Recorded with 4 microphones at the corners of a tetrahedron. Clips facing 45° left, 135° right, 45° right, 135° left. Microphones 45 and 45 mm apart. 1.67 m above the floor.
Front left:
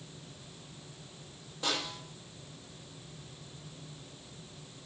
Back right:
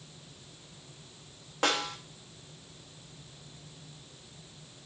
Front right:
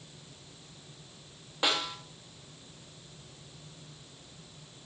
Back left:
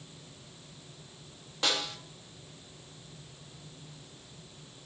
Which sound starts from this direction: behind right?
A snare drum, at 1.6 s.